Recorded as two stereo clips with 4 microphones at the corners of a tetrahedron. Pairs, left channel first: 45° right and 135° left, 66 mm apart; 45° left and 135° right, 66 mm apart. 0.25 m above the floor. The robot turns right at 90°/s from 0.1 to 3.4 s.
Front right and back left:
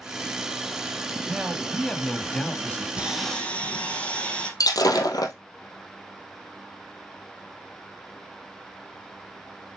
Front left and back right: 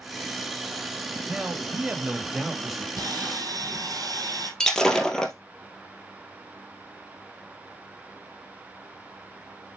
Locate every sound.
1.3 s a man speaking: 175° left, 1.4 m; by 2.9 s 40° right, 1.4 m
3.0 s sawing: 155° right, 3.5 m; by 4.5 s 115° right, 3.5 m
4.6 s breaking glass: 35° right, 1.9 m